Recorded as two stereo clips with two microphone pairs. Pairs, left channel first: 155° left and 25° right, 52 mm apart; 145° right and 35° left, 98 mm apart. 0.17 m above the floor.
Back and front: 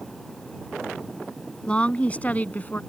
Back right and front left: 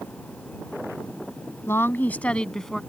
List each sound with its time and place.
1.7 s a woman speaking: 170° right; by 2.8 s 125° left